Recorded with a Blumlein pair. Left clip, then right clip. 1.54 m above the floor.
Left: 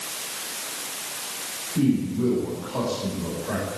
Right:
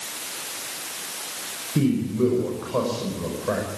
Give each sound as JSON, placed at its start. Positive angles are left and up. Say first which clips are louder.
{"t": 1.8, "sound": "a man speaking", "louder": "right 1 dB", "azimuth_deg": -25, "distance_m": 6.0}